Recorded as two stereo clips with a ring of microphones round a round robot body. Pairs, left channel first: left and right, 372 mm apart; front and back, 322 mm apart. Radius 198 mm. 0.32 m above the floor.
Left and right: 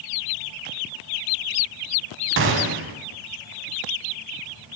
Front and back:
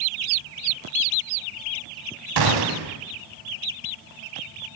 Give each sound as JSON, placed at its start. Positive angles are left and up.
{"t": 2.4, "sound": "a gunshot", "azimuth_deg": -150, "distance_m": 0.6}